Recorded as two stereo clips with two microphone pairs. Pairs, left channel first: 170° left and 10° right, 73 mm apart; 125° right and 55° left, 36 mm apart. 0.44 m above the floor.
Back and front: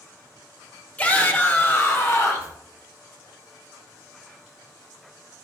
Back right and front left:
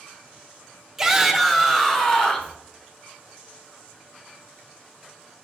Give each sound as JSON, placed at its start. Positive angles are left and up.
{"t": 1.0, "sound": "a shout", "azimuth_deg": 125, "distance_m": 1.1}